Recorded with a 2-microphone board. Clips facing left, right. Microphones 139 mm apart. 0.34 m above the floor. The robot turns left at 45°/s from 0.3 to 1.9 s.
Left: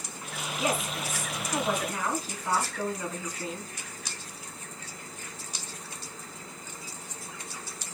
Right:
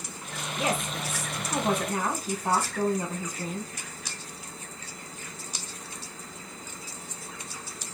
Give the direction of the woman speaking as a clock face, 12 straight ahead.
2 o'clock.